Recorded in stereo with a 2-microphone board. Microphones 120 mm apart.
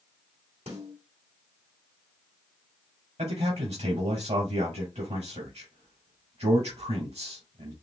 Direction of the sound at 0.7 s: 65° right (ahead or behind).